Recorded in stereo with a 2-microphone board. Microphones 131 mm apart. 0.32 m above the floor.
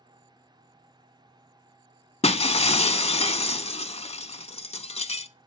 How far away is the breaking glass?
About 0.5 m.